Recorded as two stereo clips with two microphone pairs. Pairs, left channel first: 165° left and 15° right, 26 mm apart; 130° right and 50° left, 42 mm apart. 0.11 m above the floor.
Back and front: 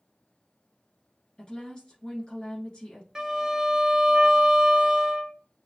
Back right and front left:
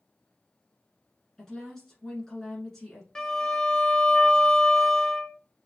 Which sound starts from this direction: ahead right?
A violin, at 3.1 s.